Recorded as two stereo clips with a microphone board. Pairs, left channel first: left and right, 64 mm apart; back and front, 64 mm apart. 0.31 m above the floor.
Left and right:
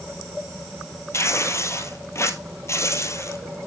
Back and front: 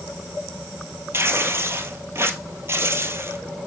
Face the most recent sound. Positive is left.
turn(degrees=50)